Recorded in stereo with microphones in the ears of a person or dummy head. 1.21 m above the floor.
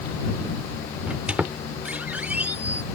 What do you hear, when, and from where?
1.1 s a squeak: 5° right (ahead or behind)